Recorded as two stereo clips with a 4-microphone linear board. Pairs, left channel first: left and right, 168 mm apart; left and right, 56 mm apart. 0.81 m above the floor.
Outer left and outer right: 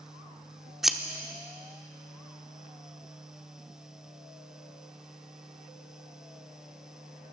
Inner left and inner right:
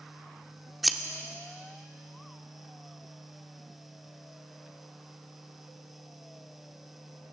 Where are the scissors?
Centre (ahead or behind), 0.7 m.